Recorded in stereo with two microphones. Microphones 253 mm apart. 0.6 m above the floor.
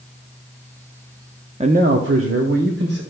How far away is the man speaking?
About 0.7 m.